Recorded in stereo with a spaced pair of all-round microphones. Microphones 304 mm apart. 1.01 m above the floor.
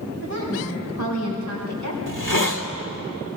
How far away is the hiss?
About 1.6 m.